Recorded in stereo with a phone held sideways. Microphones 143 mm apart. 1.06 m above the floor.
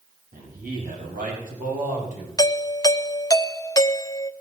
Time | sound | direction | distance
0.3 | a man speaking | 75° right (ahead or behind) | 6.5 m
2.4 | a doorbell | 25° left (ahead or behind) | 0.5 m